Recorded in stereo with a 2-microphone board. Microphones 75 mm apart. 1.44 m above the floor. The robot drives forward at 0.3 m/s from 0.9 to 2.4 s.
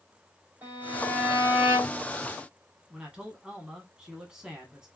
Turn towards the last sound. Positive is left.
turn(degrees=-10)  # may be behind; listen again after turning